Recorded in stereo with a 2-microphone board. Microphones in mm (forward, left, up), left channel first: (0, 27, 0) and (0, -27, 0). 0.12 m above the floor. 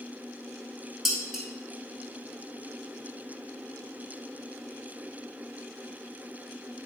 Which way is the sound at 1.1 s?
5° right (ahead or behind).